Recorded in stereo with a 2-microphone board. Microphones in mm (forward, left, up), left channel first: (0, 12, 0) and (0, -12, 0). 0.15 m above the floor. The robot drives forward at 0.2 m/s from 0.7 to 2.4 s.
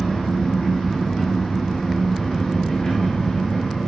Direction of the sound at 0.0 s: 60° left (ahead or behind).